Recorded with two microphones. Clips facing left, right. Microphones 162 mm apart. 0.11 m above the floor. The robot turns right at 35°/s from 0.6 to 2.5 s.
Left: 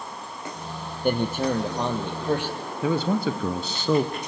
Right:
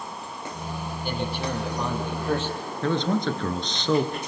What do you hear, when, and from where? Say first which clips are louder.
1.0 s a man speaking: left 7 dB; 120° left, 3 m; by 2.6 s 170° left, 3 m
2.8 s a man speaking: left 1 dB; 10° left (ahead or behind), 1.6 m